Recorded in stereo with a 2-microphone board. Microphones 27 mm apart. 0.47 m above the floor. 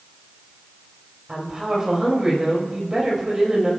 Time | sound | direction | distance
1.3 | a woman speaking | 30° right (ahead or behind) | 2.5 m